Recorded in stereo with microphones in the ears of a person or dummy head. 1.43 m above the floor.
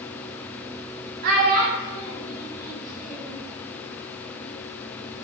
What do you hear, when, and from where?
1.2 s a child speaking: 55° right (ahead or behind), 0.8 m; by 3.4 s 40° right (ahead or behind), 2 m